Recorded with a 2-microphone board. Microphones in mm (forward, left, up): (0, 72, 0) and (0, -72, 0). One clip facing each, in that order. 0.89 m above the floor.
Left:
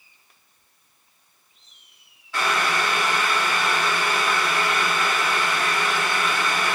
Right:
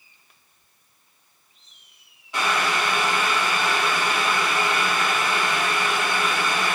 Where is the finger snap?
No finger snap in this recording.